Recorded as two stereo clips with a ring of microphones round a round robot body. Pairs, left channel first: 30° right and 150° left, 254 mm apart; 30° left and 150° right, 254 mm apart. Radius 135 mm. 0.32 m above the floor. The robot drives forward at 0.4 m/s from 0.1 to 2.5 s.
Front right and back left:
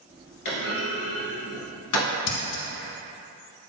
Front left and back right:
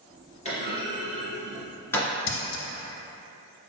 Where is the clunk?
35° right, 1.8 m; by 2.1 s 55° right, 1.3 m.